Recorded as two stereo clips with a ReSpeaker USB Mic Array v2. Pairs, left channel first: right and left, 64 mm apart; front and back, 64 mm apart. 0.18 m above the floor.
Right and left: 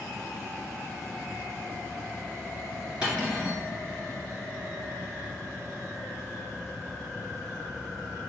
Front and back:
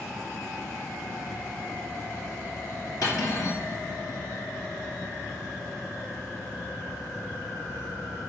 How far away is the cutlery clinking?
About 1.7 m.